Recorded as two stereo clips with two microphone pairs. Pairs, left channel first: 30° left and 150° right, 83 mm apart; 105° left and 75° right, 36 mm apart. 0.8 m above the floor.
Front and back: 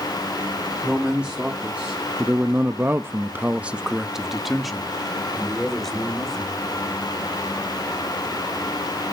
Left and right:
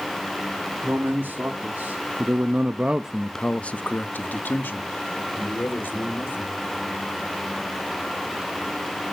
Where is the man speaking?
75° right, 2 m; by 6.6 s 115° left, 3 m.